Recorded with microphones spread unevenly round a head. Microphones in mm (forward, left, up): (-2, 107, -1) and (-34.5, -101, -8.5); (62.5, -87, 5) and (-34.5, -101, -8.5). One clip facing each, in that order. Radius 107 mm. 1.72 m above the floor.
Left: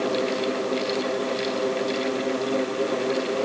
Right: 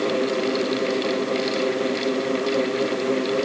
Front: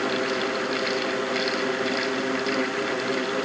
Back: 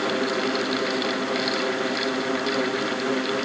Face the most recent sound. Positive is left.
No sound to turn to.